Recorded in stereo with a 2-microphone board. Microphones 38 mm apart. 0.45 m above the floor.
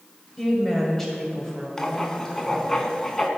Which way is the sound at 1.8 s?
15° left (ahead or behind).